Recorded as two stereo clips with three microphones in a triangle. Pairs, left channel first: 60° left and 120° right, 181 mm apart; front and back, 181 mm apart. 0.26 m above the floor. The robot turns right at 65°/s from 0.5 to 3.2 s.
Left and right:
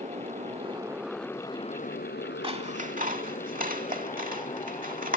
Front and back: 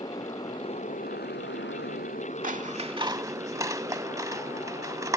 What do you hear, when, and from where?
0.0 s a motorcycle: 70° right; by 5.2 s 105° left
2.4 s scissors: 165° right; by 5.2 s 115° right